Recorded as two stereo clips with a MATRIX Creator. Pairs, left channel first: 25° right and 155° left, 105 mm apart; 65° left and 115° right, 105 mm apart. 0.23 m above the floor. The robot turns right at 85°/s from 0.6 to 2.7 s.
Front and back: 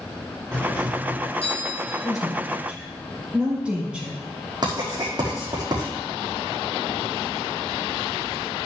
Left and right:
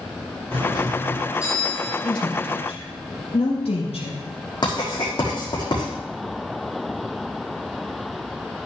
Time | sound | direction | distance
0.5 | a doorbell | 105° right | 3 m
2.0 | a woman speaking | 20° left | 5.5 m
4.6 | writing | 110° left | 5.5 m